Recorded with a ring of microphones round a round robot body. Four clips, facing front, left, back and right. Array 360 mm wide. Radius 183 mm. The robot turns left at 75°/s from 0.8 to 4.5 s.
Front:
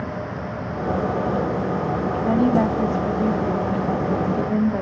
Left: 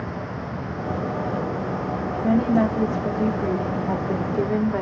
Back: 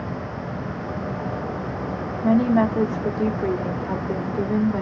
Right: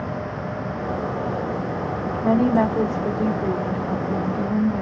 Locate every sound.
2.2 s a woman speaking: 110° right, 1.4 m; by 4.8 s 80° left, 1.4 m